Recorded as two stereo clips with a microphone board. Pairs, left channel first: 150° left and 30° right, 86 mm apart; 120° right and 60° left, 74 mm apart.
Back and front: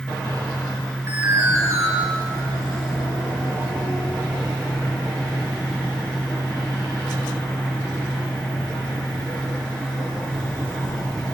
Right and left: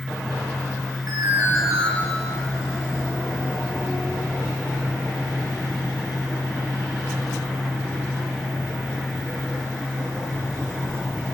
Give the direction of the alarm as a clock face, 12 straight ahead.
11 o'clock.